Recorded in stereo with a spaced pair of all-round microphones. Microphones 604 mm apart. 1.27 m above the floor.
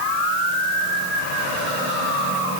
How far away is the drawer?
I don't hear a drawer.